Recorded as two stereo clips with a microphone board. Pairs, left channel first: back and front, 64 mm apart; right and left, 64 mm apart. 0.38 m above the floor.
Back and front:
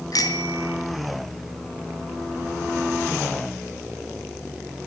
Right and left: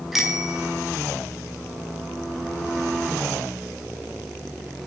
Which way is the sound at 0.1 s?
175° left.